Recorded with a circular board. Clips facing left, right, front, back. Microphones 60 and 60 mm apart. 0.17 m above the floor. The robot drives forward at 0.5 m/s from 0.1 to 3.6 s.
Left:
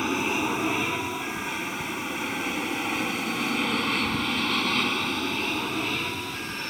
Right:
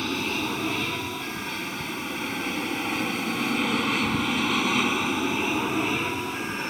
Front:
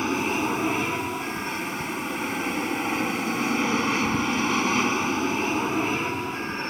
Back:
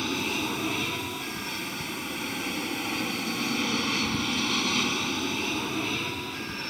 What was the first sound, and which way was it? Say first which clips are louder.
An aircraft: left 2 dB, front 5 dB; 35° left.